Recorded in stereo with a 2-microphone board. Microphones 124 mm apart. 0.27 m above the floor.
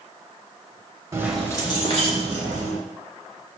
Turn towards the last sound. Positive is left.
turn(degrees=70)  # may be behind; listen again after turning